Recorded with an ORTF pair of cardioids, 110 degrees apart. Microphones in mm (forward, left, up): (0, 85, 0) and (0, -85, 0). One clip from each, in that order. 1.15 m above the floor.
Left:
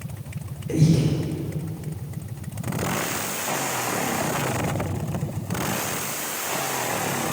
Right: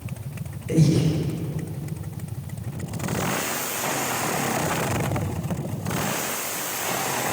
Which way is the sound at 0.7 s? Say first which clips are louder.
Right 1 dB; straight ahead.